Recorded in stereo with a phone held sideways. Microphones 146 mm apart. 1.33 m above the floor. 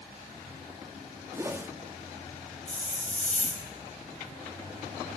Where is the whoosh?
20° right (ahead or behind), 1.5 m.